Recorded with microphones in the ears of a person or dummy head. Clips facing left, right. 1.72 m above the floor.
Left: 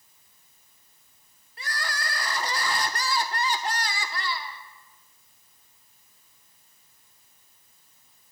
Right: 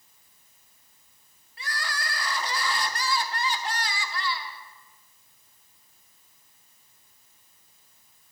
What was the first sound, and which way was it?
Crying, 45° left (ahead or behind).